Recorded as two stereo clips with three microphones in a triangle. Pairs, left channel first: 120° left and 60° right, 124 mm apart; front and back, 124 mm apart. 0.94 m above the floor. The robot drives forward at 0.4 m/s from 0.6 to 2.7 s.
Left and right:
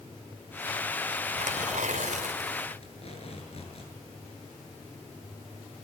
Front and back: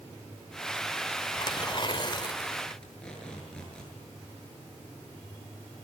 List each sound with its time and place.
1.4 s tearing paper: 50° right, 3 m; by 2.8 s 55° right, 2.5 m
2.8 s tape being pulled: 85° left, 7.5 m